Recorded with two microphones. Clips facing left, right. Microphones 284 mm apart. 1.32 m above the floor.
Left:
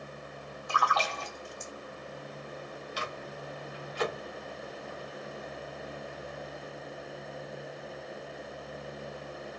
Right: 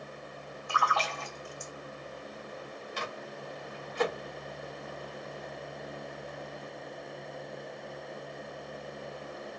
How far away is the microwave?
About 1.5 m.